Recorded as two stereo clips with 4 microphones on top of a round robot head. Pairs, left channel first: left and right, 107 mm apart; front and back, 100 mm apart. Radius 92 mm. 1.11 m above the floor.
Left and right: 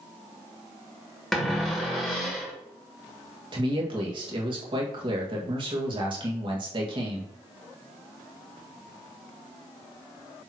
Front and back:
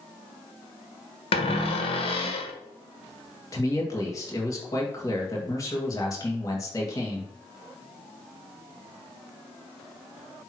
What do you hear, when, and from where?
1.3 s a cupboard door: straight ahead, 1.5 m
3.5 s a man speaking: 55° right, 1.7 m